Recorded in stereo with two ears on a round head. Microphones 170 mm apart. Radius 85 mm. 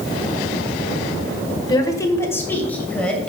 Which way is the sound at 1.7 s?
25° left (ahead or behind).